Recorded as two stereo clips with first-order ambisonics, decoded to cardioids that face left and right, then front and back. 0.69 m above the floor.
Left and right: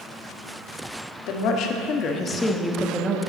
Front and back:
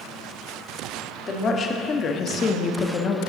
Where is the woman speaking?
65° left, 1.1 m; by 3.2 s 40° right, 0.7 m.